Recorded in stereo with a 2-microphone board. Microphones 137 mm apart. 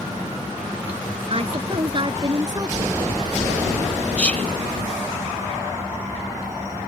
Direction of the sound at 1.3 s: 50° right (ahead or behind).